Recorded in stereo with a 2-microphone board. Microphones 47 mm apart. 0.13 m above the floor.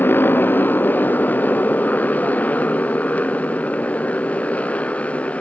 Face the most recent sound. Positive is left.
turn(degrees=30)  # may be behind; listen again after turning